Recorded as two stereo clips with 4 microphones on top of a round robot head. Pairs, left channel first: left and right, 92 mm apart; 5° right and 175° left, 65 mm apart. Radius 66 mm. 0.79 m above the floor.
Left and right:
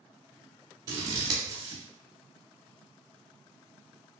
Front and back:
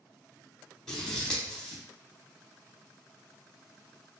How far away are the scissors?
About 0.7 m.